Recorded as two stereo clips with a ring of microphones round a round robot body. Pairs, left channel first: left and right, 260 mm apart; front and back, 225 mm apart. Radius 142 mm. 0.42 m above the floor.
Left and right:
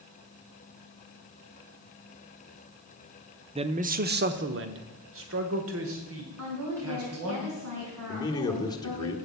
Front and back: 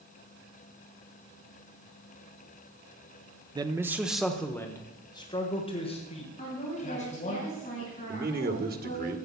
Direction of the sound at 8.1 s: 160° left.